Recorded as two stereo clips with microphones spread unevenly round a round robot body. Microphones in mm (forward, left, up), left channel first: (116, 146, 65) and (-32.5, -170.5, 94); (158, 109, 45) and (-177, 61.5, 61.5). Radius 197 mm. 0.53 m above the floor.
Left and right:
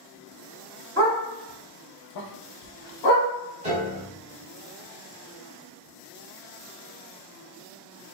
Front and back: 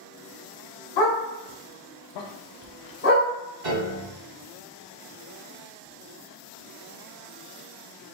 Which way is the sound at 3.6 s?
170° left.